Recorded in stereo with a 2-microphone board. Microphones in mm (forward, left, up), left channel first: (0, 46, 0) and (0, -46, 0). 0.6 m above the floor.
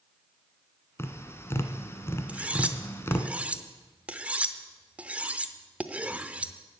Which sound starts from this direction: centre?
Cutlery clinking, at 2.3 s.